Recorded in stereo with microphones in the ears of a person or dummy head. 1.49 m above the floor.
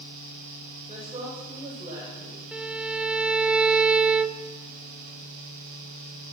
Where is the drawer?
No drawer in this recording.